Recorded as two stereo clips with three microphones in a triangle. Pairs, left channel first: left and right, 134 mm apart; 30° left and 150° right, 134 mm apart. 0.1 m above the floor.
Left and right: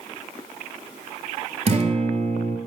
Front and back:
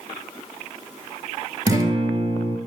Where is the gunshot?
I don't hear a gunshot.